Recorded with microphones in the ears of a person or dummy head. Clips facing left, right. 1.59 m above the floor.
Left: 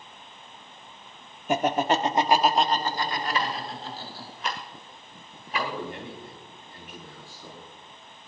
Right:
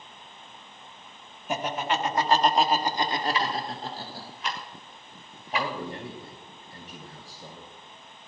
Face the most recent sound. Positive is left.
turn(degrees=-35)  # may be behind; listen again after turning